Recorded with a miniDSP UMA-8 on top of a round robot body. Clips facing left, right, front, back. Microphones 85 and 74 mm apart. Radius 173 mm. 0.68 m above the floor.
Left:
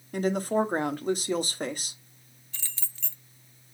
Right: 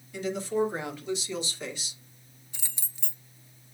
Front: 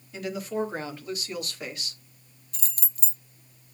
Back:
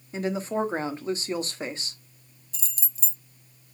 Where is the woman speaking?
125° left, 1.7 m.